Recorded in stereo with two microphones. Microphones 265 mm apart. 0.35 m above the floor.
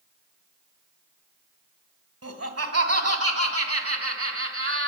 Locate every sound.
2.2 s laughter: 65° right (ahead or behind), 2 m; by 4.9 s 55° right (ahead or behind), 3 m